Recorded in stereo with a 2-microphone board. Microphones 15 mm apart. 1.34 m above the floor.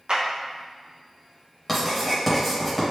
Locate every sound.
0.1 s a clap: 70° right (ahead or behind), 0.7 m
1.7 s writing: centre (ahead or behind), 1.1 m